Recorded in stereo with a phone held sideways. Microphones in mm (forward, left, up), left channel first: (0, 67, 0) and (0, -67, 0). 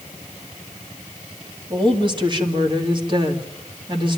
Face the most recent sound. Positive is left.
turn(degrees=-35)  # may be behind; listen again after turning